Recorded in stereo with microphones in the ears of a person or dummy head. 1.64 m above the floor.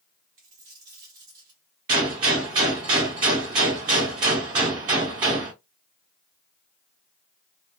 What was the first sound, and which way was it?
A dropped coin, 40° right (ahead or behind).